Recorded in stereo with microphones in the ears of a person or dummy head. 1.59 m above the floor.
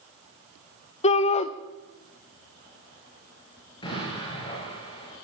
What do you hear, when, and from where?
1.0 s a shout: 35° left (ahead or behind), 0.8 m
3.8 s an explosion: 30° left (ahead or behind), 5.5 m